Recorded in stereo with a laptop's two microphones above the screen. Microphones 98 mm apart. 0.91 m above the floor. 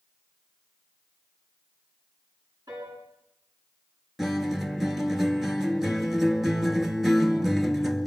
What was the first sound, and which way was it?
A piano, 40° right (ahead or behind).